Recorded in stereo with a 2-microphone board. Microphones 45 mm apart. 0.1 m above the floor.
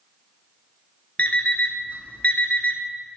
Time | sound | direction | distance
1.2 | an alarm clock | 35° left (ahead or behind) | 0.6 m